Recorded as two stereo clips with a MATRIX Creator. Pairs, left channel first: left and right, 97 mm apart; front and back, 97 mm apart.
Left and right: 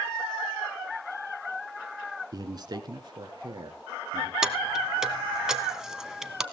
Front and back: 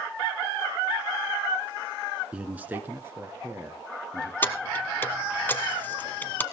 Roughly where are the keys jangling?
Ahead.